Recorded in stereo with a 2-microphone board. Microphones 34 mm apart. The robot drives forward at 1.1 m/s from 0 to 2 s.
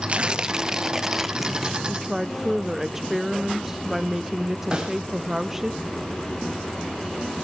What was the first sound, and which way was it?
Tearing paper, 40° right (ahead or behind).